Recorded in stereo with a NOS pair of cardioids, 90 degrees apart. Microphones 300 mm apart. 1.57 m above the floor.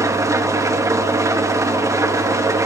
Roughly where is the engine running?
Ahead.